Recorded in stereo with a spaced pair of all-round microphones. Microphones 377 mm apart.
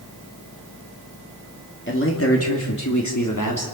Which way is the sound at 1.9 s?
30° left (ahead or behind).